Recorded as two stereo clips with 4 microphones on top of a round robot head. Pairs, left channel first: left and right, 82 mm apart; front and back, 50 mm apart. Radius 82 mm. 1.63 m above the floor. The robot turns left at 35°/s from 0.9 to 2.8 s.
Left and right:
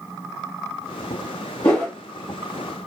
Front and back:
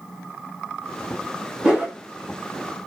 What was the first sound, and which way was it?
A whoosh, 110° left.